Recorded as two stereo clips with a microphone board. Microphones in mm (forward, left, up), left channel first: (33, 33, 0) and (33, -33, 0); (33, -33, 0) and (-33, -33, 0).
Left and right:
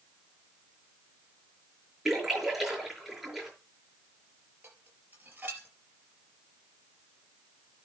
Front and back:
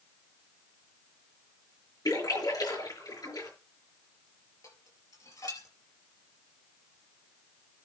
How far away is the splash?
About 6 m.